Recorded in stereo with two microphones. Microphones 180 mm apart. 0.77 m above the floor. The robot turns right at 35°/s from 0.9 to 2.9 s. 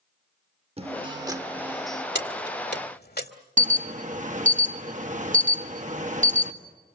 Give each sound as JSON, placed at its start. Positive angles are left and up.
{"t": 0.8, "sound": "a guitar", "azimuth_deg": -35, "distance_m": 0.9}
{"t": 2.1, "sound": "keys jangling", "side_deg": 80, "distance_m": 1.9}
{"t": 3.6, "sound": "an alarm", "side_deg": -45, "distance_m": 1.7}